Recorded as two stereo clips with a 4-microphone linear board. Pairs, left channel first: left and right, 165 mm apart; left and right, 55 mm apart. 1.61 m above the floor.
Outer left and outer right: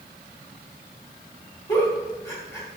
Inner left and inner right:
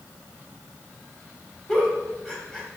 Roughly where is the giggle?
Centre.